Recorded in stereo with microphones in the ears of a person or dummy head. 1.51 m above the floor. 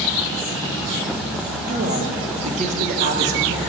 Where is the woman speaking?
40° right (ahead or behind), 1.5 m.